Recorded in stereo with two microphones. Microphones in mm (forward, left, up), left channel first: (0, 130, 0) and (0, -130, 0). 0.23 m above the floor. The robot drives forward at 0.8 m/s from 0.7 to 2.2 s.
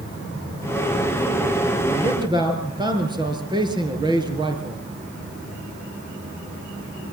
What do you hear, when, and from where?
1.9 s a man speaking: 15° right (ahead or behind), 4 m